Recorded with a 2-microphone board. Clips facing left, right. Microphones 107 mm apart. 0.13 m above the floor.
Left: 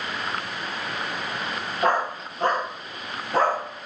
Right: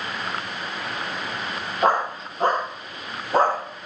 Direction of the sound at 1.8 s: 30° right (ahead or behind).